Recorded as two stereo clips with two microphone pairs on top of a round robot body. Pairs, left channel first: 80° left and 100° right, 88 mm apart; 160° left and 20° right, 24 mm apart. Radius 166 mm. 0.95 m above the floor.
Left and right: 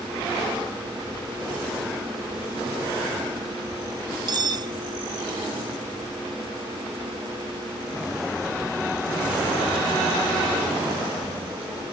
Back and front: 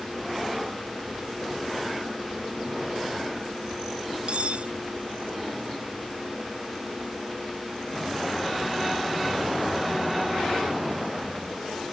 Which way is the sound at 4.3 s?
55° right.